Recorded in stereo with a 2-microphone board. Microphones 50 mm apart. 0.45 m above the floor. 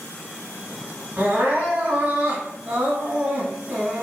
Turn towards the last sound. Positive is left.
turn(degrees=-45)  # may be behind; listen again after turning